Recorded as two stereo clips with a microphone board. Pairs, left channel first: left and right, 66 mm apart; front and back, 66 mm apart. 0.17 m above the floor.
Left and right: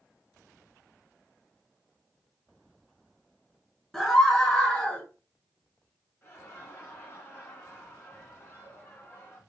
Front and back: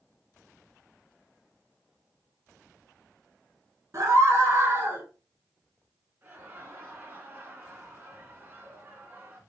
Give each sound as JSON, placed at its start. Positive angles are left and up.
{"t": 3.9, "sound": "a scream", "azimuth_deg": 175, "distance_m": 2.0}
{"t": 6.2, "sound": "laughter", "azimuth_deg": 130, "distance_m": 2.0}